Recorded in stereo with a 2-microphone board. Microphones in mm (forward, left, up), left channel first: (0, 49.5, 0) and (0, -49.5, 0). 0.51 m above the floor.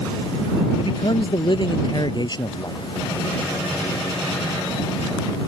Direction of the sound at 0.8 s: 55° left (ahead or behind).